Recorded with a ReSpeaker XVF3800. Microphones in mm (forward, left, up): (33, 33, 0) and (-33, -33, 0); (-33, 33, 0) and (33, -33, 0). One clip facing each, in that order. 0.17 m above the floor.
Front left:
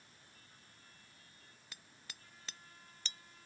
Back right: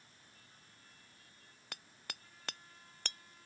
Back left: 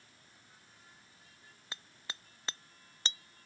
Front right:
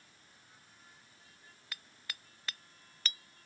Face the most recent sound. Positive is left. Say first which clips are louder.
# back right 8 dB, back left 2 dB
turn(degrees=-160)